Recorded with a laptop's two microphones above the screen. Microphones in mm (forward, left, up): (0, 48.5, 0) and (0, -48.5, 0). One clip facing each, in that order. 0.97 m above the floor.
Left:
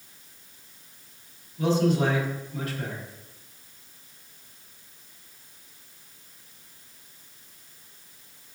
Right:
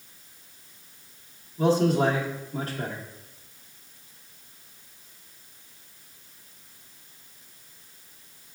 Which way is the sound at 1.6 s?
35° right (ahead or behind).